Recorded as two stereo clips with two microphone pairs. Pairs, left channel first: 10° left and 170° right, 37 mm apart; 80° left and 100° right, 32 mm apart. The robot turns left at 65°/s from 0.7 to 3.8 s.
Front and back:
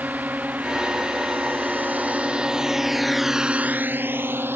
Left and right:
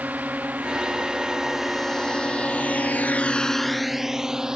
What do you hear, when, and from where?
0.0 s a drone: 130° right; by 4.6 s 170° right